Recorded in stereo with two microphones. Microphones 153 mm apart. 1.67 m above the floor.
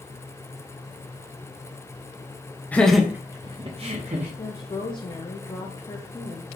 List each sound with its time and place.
2.7 s laughter: 10° left (ahead or behind), 0.5 m; by 4.3 s 55° right (ahead or behind), 0.8 m
4.4 s a woman speaking: 30° left (ahead or behind), 0.5 m